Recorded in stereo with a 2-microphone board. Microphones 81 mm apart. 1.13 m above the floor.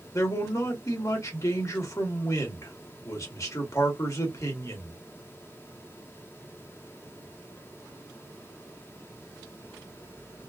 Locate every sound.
0.1 s a man speaking: 40° left (ahead or behind), 1.3 m